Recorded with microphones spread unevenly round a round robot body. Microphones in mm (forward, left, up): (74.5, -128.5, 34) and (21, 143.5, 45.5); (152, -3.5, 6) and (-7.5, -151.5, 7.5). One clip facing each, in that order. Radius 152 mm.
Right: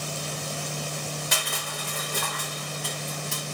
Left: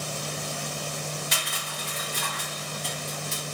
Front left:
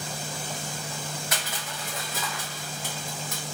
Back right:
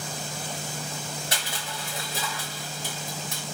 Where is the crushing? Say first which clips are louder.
Right 3 dB, even; 85° right, 1.3 m.